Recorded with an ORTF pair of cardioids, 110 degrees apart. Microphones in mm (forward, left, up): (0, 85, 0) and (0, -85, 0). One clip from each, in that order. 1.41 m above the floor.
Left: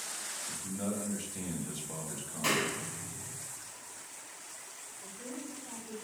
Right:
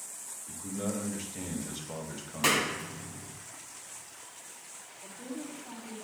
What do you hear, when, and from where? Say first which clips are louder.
0.5 s a man speaking: right 6 dB; 20° right, 2 m
2.4 s a clap: right 4 dB; 45° right, 1.4 m
5.0 s a woman speaking: right 3 dB; 15° right, 3 m